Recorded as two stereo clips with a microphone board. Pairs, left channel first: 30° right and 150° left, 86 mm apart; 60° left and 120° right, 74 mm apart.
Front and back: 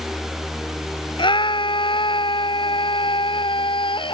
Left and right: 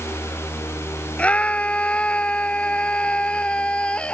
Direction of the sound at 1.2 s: 15° right.